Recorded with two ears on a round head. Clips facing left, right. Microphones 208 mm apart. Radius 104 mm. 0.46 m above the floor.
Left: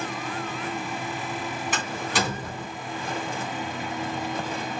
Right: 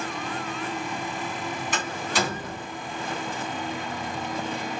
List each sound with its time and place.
1.7 s a door slam: 45° left (ahead or behind), 2.5 m